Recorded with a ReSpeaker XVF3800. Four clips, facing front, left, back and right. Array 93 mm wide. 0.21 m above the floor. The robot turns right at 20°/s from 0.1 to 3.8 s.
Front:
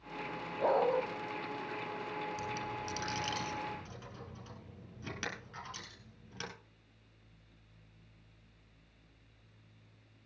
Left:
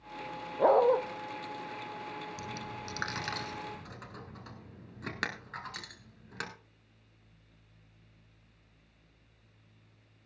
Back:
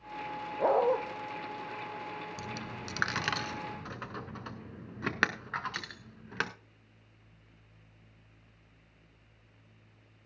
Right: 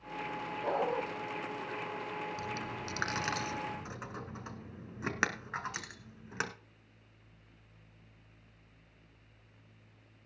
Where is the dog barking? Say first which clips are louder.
Left 10 dB, back 3 dB; 110° left, 1.9 m; by 1.0 s 115° left, 1.9 m.